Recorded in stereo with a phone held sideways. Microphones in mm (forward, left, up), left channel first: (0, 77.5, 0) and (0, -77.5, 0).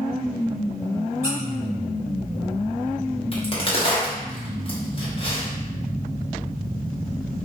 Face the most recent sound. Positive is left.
turn(degrees=35)  # may be behind; listen again after turning